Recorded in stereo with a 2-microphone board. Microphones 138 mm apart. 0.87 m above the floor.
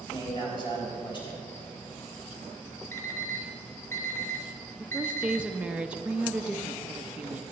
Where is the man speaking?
35° left (ahead or behind), 4 m.